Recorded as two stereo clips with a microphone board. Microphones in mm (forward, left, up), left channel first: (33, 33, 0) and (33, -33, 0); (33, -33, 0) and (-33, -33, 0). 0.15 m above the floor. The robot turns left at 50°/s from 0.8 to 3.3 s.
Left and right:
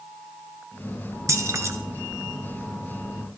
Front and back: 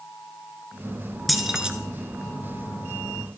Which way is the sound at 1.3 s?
90° right.